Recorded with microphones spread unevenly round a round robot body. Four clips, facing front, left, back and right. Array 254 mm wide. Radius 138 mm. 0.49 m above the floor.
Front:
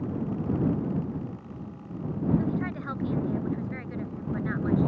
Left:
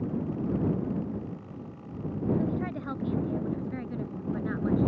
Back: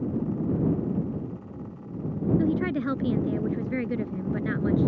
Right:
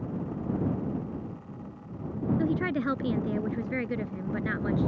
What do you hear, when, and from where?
2.4 s a woman speaking: 150° right; by 4.9 s 160° right